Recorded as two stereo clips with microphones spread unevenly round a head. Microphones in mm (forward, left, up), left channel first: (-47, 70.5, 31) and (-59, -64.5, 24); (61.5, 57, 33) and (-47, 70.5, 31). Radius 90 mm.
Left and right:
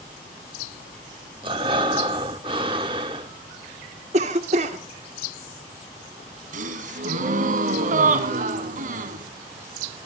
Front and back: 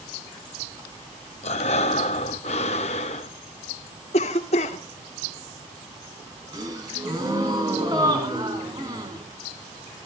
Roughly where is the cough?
Ahead right.